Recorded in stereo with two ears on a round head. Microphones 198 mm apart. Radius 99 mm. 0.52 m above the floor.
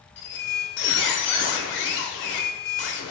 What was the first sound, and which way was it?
A squeak, 55° left (ahead or behind).